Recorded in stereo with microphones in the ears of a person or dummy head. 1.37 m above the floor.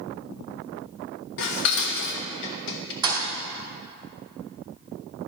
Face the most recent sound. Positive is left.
turn(degrees=-20)  # may be behind; listen again after turning